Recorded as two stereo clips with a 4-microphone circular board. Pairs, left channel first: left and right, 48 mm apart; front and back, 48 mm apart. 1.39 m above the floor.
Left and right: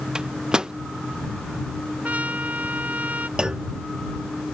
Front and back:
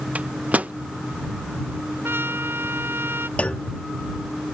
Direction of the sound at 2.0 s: 145° right.